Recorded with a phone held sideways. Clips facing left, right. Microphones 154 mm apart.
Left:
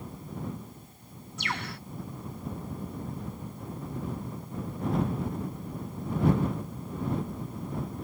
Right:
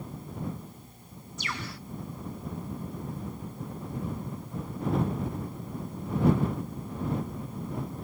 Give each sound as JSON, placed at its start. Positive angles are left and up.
{"t": 1.4, "sound": "a bird", "side_deg": 60}